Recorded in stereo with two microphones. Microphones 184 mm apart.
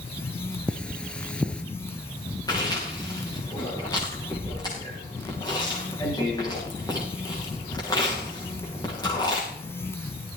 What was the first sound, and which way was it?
Cutlery clinking, 5° left (ahead or behind).